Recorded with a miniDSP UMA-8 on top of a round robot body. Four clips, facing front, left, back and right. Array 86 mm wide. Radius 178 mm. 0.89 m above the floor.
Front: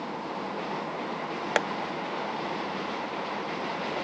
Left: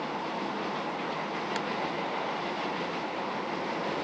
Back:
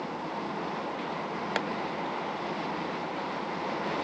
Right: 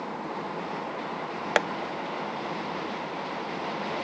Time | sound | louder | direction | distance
1.6 | tapping | right 14 dB, front 6 dB | 65° right | ?